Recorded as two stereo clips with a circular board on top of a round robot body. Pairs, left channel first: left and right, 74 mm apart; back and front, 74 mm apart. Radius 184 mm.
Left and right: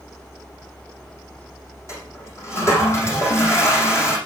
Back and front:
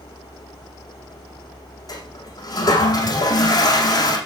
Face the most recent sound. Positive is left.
turn(degrees=145)